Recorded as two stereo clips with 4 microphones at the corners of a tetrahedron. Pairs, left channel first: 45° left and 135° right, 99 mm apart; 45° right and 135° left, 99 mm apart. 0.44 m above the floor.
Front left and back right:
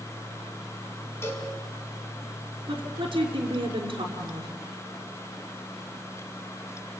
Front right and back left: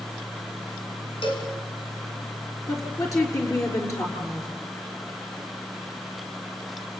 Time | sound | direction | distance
1.2 | a cowbell | 20° right | 5 m
2.7 | a woman speaking | 100° right | 6 m